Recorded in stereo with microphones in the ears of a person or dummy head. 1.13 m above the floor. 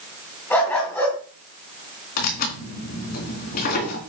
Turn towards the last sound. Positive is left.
turn(degrees=45)  # may be behind; listen again after turning